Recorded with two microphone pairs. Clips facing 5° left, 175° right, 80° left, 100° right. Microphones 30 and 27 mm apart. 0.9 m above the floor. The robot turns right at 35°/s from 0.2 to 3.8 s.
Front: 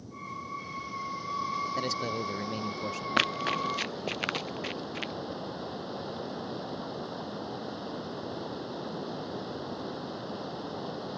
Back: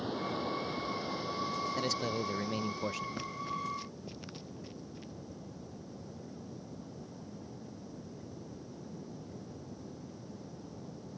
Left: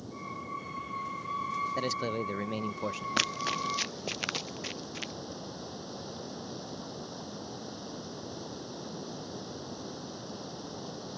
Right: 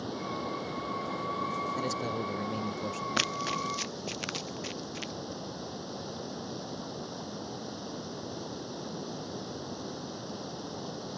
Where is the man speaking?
60° left; by 3.1 s 105° left.